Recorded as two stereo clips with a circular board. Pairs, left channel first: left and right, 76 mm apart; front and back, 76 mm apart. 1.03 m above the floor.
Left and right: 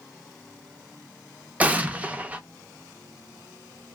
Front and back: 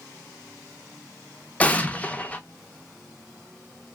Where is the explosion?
45° right, 0.6 m.